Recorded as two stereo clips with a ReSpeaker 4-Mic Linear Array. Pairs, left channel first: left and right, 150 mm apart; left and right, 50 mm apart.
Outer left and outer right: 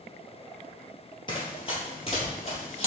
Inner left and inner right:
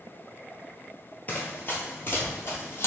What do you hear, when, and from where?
1.3 s running footsteps: 35° left (ahead or behind), 1.6 m; by 2.9 s 45° left (ahead or behind), 2.5 m